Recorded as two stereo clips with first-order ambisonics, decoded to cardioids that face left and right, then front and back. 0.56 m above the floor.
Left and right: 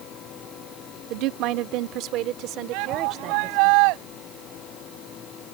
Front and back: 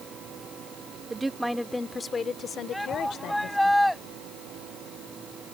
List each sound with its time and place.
1.1 s a woman speaking: 105° right; by 3.7 s 40° right
2.7 s a shout: 90° right